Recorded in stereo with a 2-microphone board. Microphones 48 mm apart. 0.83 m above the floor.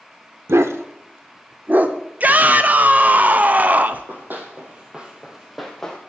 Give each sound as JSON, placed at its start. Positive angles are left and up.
{"t": 0.5, "sound": "a dog barking", "side_deg": -65, "distance_m": 0.8}
{"t": 2.2, "sound": "a shout", "side_deg": -35, "distance_m": 0.6}
{"t": 3.9, "sound": "running footsteps", "side_deg": -50, "distance_m": 2.5}